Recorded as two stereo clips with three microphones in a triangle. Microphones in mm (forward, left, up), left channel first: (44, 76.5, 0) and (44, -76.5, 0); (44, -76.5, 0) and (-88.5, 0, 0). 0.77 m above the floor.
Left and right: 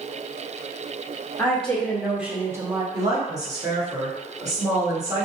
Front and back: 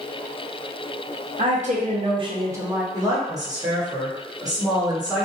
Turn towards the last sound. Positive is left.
turn(degrees=-150)